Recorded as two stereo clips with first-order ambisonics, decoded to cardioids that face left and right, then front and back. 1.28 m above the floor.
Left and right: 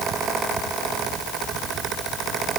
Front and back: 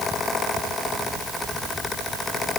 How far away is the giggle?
No giggle in this recording.